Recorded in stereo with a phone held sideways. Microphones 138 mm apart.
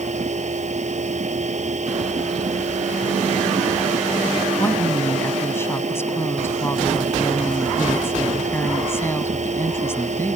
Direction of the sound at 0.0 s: 55° right (ahead or behind).